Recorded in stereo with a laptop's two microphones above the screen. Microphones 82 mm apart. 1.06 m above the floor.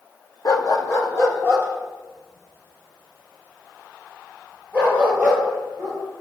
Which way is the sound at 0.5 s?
45° left (ahead or behind).